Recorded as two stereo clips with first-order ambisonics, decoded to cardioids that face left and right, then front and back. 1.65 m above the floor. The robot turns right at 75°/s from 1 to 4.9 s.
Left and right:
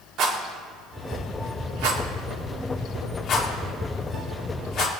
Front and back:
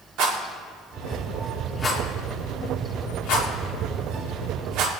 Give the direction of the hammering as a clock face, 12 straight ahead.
No hammering in this recording.